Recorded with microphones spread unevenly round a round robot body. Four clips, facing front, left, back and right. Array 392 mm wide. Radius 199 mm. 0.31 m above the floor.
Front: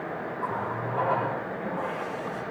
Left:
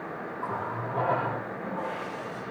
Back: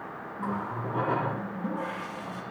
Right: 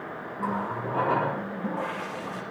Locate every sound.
0.4 s a running tap: 140° right, 7 m